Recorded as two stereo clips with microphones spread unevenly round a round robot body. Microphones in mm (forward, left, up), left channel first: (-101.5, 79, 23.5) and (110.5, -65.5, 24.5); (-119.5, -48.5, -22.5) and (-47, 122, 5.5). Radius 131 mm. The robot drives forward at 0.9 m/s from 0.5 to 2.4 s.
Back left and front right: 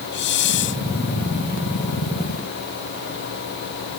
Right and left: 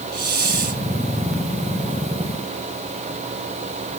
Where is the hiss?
100° left.